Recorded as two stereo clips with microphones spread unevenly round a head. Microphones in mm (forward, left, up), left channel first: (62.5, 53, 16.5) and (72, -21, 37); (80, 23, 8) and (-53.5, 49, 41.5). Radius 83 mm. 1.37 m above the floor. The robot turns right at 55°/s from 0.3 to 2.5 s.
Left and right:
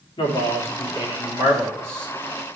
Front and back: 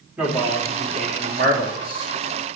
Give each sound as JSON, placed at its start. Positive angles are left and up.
{"t": 0.2, "sound": "a man speaking", "azimuth_deg": 90, "distance_m": 2.5}